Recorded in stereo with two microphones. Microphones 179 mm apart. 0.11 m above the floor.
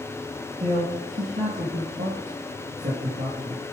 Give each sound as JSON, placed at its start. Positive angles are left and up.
{"t": 0.6, "sound": "a man speaking", "side_deg": -55, "distance_m": 2.5}